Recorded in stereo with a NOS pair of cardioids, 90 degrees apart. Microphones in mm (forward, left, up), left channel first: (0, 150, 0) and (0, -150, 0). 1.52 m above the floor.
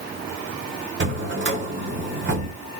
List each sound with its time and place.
1.0 s a drawer: 40° right, 2.5 m